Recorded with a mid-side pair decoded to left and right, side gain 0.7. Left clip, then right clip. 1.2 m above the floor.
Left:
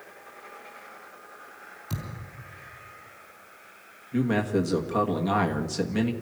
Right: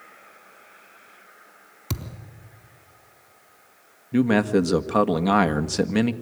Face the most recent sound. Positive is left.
turn(degrees=-35)